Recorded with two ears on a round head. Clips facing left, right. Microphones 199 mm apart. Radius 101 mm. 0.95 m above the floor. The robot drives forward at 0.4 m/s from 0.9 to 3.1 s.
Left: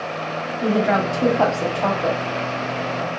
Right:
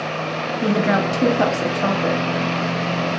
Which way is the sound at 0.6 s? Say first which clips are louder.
Even; 30° right (ahead or behind).